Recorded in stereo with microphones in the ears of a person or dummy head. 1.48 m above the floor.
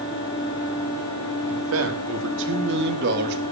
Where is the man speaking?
80° right, 3 m; by 3.4 s 55° right (ahead or behind), 3 m.